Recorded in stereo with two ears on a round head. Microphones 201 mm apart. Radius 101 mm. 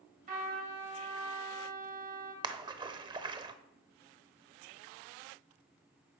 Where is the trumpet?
40° right (ahead or behind), 3 m.